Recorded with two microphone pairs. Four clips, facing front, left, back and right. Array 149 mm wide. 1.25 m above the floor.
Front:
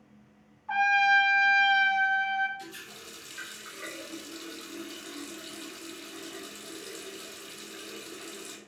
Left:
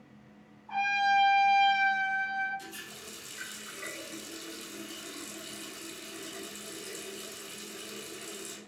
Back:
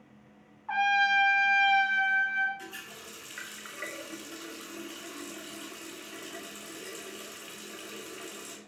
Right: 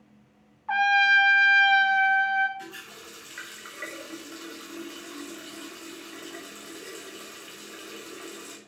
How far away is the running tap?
About 1.6 m.